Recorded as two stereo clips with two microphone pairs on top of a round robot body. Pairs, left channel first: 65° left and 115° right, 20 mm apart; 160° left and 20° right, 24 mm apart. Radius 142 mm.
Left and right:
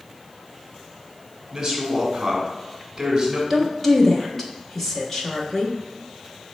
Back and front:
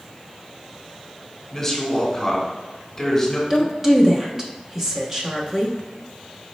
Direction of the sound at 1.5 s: 140° right.